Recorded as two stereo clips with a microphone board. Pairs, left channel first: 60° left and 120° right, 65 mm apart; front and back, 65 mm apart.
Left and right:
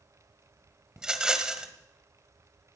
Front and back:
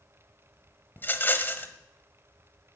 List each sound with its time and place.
1.0 s a rattle: 45° right, 1.4 m